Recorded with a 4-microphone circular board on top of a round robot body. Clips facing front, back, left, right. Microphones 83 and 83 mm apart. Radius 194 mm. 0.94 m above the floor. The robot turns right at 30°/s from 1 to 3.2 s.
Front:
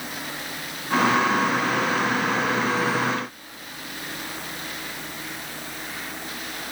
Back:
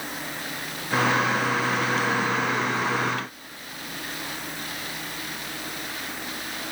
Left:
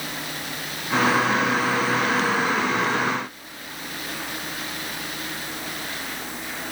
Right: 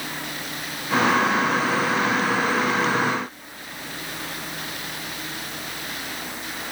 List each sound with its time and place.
Only background noise.